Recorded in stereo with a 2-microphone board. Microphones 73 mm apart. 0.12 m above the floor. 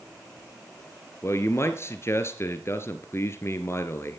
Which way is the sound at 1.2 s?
35° left (ahead or behind).